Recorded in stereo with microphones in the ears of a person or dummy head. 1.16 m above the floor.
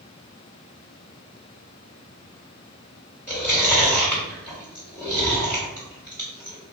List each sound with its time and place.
3.3 s chewing: centre (ahead or behind), 1.7 m